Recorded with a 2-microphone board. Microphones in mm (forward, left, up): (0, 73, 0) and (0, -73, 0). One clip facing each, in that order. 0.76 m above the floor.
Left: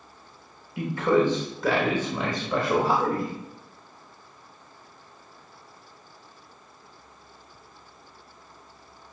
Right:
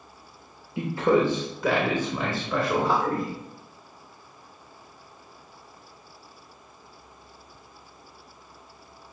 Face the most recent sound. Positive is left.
turn(degrees=30)  # may be behind; listen again after turning